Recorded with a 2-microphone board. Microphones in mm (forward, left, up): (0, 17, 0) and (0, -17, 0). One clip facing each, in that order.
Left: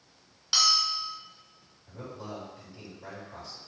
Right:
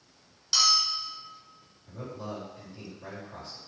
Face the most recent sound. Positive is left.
turn(degrees=-25)  # may be behind; listen again after turning